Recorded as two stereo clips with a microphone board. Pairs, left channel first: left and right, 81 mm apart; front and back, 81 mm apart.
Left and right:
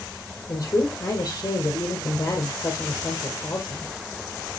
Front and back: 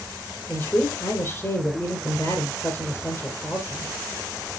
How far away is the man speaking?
About 2.5 m.